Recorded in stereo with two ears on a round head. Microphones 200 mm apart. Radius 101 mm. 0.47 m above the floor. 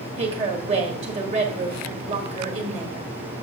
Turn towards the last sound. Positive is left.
turn(degrees=-30)  # may be behind; listen again after turning